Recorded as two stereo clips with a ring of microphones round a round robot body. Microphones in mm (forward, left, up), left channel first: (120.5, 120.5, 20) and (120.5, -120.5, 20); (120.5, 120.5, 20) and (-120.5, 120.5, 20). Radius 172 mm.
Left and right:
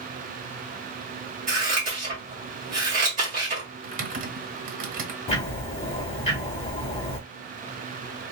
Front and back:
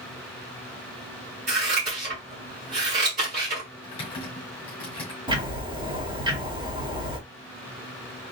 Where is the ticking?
130° left, 1.7 m.